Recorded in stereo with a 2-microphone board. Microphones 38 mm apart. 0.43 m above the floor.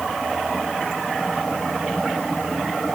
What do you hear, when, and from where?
Only background noise.